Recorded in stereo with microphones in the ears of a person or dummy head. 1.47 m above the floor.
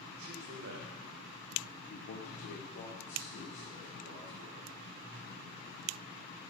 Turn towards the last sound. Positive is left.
turn(degrees=90)